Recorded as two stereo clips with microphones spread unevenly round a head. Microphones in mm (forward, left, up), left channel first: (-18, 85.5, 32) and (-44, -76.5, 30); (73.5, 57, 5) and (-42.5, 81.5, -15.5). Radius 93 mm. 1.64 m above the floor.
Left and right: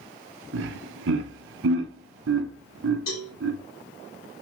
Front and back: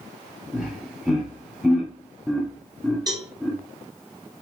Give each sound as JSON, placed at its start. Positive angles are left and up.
{"t": 0.5, "sound": "laughter", "azimuth_deg": -105, "distance_m": 0.7}
{"t": 3.1, "sound": "a cowbell", "azimuth_deg": 110, "distance_m": 3.0}